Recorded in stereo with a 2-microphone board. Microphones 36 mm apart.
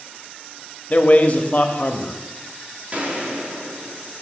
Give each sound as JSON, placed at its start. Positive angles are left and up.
{"t": 0.9, "sound": "a man speaking", "side_deg": 40, "distance_m": 0.8}
{"t": 2.9, "sound": "a gunshot", "side_deg": -40, "distance_m": 1.4}